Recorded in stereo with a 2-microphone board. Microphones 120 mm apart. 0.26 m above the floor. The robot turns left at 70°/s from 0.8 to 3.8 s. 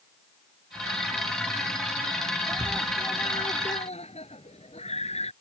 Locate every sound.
2.5 s a scream: 155° right; by 5.3 s 110° left